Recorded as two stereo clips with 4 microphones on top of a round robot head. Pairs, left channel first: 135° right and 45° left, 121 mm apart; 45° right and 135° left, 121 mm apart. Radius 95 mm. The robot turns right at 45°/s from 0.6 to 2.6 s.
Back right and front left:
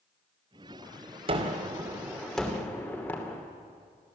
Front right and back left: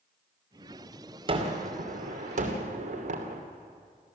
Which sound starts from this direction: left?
A gunshot, at 1.3 s.